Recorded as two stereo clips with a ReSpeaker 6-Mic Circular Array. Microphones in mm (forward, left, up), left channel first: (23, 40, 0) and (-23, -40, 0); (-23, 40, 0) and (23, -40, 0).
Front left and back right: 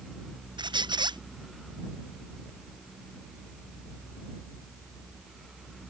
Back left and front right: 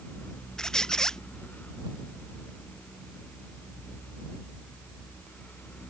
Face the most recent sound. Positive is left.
turn(degrees=-155)